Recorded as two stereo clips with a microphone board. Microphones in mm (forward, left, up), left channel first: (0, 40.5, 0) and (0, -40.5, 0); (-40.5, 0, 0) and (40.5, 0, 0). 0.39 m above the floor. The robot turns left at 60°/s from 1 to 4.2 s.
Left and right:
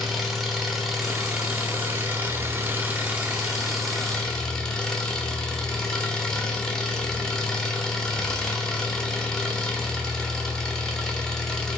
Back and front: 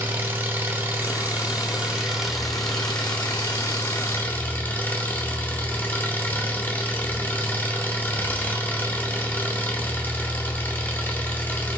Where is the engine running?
5° right, 0.9 m; by 11.8 s 160° left, 0.9 m.